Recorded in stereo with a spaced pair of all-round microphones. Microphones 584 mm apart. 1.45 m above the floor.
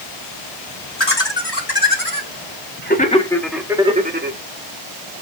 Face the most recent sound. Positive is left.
turn(degrees=-20)  # may be behind; listen again after turning